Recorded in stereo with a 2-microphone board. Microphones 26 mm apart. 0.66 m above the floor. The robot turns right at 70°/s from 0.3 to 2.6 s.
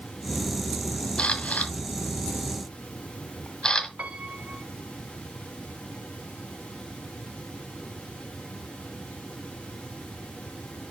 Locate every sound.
1.2 s a camera shutter: 50° left (ahead or behind), 1.7 m; by 3.9 s 35° left (ahead or behind), 1.7 m
4.0 s a piano: 70° right (ahead or behind), 1.9 m